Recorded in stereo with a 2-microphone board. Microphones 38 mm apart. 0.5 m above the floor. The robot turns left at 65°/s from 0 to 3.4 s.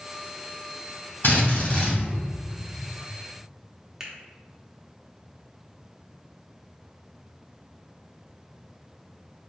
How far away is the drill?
About 1.7 m.